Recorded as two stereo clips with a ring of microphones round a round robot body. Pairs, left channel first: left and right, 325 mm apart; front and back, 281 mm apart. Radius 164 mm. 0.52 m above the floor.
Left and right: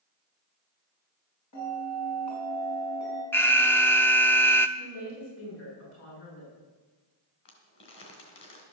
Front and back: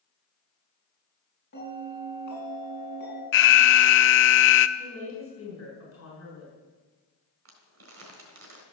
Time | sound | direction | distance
1.5 | a bell | 50° left | 6 m
3.3 | an alarm | 10° left | 0.6 m
4.8 | a woman speaking | 40° left | 5.5 m
7.5 | crumpling | 140° left | 3 m